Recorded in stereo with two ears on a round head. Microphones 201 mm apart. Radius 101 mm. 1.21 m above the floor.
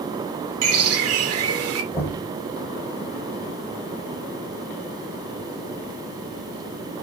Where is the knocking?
10° left (ahead or behind), 4.5 m.